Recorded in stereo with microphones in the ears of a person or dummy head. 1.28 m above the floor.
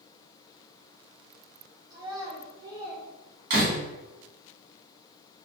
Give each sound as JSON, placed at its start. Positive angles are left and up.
{"t": 1.9, "sound": "a child speaking", "side_deg": -25, "distance_m": 1.6}
{"t": 3.5, "sound": "a door slam", "side_deg": -50, "distance_m": 2.0}